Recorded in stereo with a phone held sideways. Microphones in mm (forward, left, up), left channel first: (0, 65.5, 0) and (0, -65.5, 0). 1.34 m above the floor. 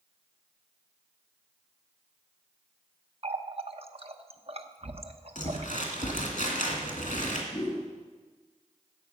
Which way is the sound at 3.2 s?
50° right (ahead or behind).